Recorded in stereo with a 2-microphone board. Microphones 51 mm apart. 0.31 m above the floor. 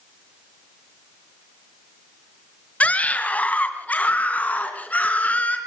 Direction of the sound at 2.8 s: 30° left (ahead or behind).